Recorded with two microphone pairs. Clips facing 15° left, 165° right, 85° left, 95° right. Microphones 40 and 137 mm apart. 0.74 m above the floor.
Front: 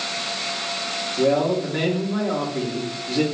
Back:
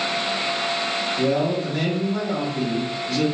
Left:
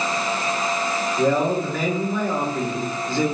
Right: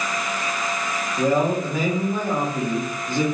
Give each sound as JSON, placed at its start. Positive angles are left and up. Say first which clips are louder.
{"t": 1.2, "sound": "a man speaking", "louder": "front 4 dB, even", "azimuth_deg": -30, "distance_m": 1.6}